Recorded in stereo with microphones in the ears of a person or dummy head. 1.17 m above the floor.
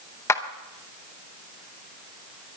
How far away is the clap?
About 0.8 m.